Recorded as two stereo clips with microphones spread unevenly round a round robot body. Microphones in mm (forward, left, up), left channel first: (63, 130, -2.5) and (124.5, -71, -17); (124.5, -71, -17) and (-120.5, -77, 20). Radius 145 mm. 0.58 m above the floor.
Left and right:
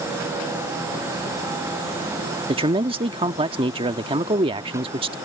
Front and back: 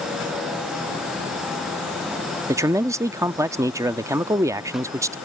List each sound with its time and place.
2.5 s a man speaking: 95° right